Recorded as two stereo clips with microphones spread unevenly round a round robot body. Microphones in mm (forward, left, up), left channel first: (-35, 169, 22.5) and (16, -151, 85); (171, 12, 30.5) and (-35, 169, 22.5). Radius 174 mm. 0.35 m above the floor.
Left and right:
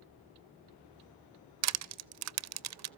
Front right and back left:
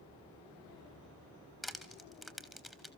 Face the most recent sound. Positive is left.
turn(degrees=-125)